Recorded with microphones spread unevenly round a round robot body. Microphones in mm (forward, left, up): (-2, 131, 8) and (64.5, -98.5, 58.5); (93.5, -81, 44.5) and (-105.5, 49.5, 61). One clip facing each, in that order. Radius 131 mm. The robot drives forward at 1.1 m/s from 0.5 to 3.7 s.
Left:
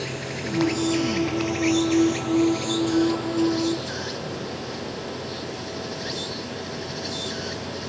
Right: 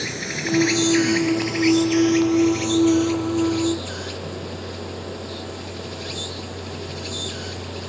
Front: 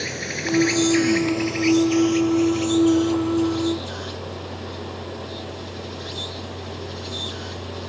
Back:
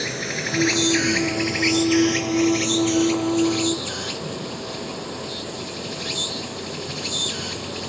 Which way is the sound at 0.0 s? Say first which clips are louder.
Right 1 dB, even; 130° right.